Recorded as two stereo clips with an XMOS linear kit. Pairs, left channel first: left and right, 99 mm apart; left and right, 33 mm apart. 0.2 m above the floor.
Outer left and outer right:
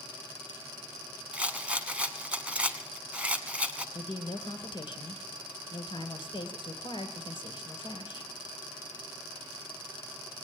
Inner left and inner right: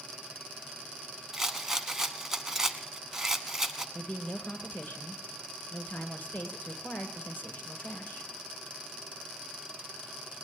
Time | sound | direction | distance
1.3 | a rattle | 10° right (ahead or behind) | 0.8 m
4.0 | a woman speaking | 60° left (ahead or behind) | 2 m